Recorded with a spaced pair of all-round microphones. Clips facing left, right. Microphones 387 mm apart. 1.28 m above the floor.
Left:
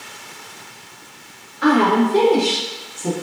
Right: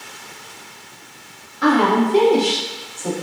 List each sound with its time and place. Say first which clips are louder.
1.6 s a woman speaking: left 1 dB; 60° right (ahead or behind), 1.5 m; by 3.1 s 40° left (ahead or behind), 0.7 m